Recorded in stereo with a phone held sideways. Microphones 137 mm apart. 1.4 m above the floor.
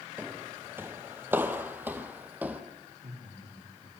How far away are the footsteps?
About 1.4 m.